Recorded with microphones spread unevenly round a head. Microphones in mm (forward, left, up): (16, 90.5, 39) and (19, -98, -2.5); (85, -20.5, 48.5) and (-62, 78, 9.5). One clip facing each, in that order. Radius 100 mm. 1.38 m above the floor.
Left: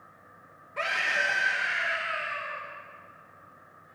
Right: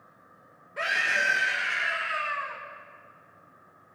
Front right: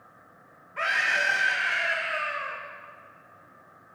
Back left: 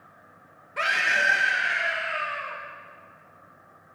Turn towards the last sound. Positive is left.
turn(degrees=-105)